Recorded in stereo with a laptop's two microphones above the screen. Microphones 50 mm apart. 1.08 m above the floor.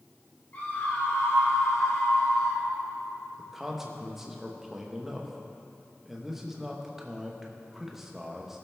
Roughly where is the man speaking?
Centre.